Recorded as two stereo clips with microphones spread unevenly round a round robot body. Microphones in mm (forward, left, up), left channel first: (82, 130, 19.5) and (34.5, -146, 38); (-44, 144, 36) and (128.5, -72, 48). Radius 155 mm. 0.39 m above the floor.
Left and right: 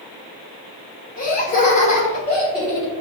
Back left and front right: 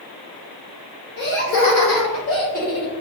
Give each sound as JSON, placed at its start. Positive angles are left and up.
{"t": 1.2, "sound": "laughter", "azimuth_deg": 115, "distance_m": 1.4}